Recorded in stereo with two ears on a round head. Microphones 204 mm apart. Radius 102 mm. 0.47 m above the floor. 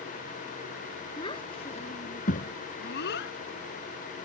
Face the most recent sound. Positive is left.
turn(degrees=60)  # may be behind; listen again after turning